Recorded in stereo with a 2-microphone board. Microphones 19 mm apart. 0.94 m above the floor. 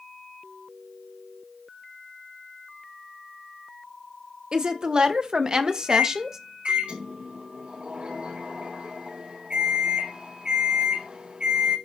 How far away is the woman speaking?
About 1.4 m.